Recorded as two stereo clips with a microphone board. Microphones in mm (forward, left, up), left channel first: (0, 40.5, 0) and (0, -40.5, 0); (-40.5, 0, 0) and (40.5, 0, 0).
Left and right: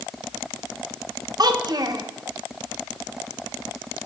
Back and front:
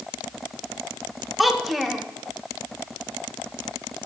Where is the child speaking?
90° right, 1.0 m.